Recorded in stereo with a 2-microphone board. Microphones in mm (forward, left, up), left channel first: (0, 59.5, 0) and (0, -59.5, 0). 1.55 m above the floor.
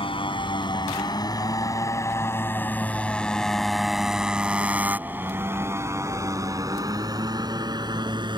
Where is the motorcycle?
50° left (ahead or behind); by 8.4 s 40° right (ahead or behind).